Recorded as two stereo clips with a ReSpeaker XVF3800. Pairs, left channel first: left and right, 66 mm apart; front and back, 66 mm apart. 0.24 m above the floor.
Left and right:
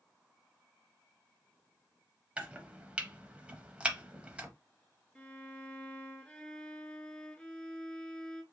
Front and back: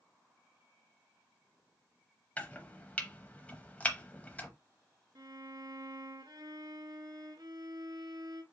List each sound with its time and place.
2.4 s chopping: 40° right, 0.7 m
5.2 s a violin: 165° left, 0.6 m